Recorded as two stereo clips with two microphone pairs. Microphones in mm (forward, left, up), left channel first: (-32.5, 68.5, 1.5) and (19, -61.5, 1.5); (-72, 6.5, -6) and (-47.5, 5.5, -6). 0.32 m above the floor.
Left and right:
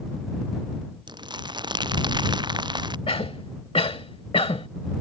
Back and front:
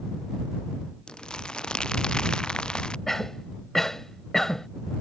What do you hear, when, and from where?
1.1 s crumpling: 125° right
3.1 s a cough: 120° left